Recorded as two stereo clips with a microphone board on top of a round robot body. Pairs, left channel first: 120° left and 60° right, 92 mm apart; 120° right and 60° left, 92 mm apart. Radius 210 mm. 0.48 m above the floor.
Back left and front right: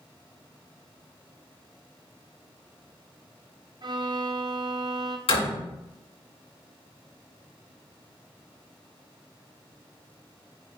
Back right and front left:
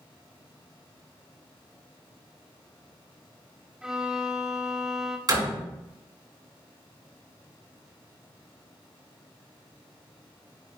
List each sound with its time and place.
3.8 s a violin: 25° right, 1.4 m
5.3 s a door slam: 105° left, 5 m